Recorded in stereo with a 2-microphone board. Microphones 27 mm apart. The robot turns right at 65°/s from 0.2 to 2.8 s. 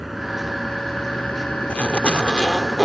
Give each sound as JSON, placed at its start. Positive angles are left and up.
{"t": 0.0, "sound": "a vehicle", "azimuth_deg": -5}
{"t": 1.7, "sound": "a zipper", "azimuth_deg": 100}